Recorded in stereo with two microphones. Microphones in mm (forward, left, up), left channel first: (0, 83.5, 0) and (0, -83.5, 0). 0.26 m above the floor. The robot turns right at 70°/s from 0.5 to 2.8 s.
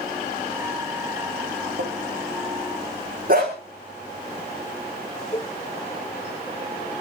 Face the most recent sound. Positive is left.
turn(degrees=40)  # may be behind; listen again after turning